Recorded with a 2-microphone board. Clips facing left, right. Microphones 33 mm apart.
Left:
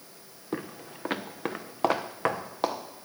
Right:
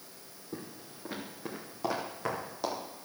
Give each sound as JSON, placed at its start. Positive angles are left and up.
{"t": 0.5, "sound": "footsteps", "side_deg": 85, "distance_m": 0.7}